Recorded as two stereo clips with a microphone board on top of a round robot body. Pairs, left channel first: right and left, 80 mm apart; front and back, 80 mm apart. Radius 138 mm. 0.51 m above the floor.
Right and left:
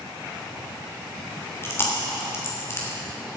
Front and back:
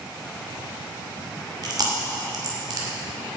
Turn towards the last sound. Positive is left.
turn(degrees=-145)